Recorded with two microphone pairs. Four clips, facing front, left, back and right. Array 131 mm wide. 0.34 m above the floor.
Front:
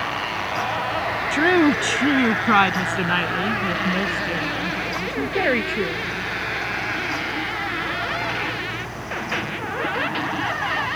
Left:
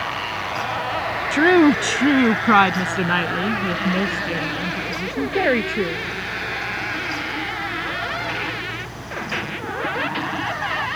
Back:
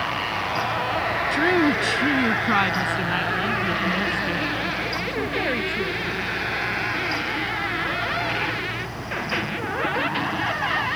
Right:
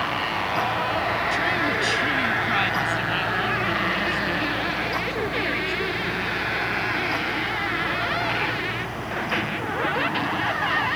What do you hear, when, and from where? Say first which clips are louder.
1.3 s a woman speaking: left 10 dB, front 4 dB; 80° left; by 6.0 s 70° left